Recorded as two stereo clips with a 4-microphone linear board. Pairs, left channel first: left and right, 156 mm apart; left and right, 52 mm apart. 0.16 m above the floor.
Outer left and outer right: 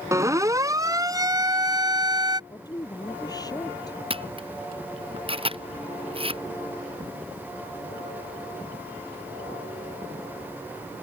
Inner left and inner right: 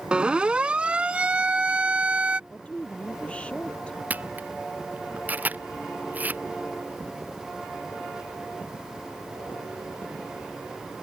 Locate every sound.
0.1 s a siren: 20° right (ahead or behind); by 2.4 s 25° right (ahead or behind)
2.5 s a woman speaking: 25° left (ahead or behind)
4.1 s a camera shutter: 35° right (ahead or behind)